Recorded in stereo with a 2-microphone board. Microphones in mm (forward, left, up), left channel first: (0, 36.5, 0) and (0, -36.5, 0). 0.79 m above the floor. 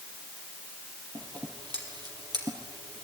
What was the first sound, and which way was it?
Scissors, 80° right.